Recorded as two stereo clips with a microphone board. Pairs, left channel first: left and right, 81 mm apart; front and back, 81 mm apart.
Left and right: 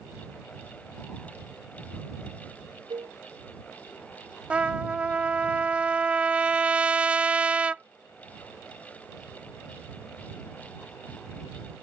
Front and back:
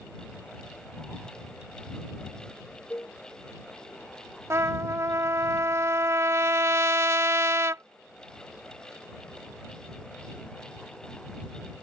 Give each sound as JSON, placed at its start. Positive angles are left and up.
{"t": 2.9, "sound": "a cowbell", "azimuth_deg": -65}
{"t": 4.5, "sound": "a trumpet", "azimuth_deg": -155}